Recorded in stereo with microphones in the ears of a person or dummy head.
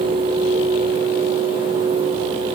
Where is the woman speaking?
No woman speaking in this recording.